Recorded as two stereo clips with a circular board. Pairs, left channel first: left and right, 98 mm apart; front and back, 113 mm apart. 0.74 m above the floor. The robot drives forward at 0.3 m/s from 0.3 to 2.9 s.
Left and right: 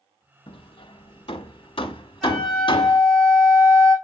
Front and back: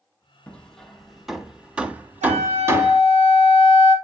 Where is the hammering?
80° left, 1.1 m; by 3.0 s 115° left, 1.2 m.